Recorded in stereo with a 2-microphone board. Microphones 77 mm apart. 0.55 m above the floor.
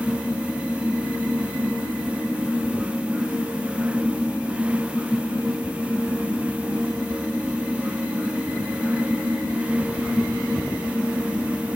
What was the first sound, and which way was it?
Only background noise.